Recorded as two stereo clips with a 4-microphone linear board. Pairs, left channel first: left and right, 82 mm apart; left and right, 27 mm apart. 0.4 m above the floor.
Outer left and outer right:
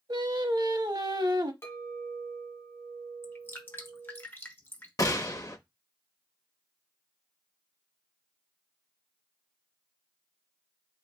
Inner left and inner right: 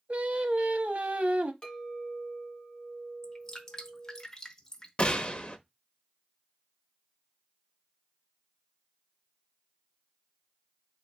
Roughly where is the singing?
Right.